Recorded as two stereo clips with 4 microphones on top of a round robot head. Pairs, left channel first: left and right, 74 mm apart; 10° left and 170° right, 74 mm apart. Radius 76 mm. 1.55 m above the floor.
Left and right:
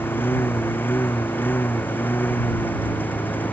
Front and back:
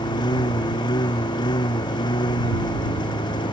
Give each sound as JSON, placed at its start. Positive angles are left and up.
{"t": 0.0, "sound": "a lawn mower", "azimuth_deg": 30}